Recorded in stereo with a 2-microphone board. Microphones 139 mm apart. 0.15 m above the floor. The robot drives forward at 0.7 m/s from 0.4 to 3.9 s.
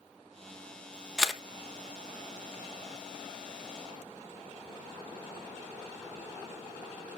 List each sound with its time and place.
1.2 s a camera shutter: 5° right (ahead or behind), 0.7 m; by 1.4 s centre (ahead or behind), 0.9 m